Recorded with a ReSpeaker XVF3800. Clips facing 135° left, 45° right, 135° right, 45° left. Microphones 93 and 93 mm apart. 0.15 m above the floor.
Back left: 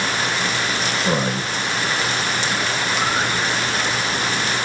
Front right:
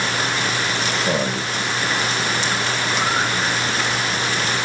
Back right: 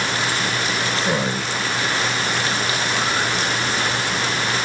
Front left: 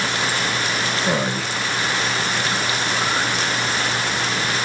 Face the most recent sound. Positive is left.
turn(degrees=130)